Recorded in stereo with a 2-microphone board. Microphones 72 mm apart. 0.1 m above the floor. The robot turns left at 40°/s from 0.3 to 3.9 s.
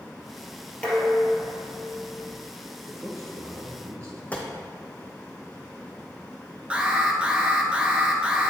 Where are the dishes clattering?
160° left, 1.5 m; by 2.3 s 100° left, 1.5 m.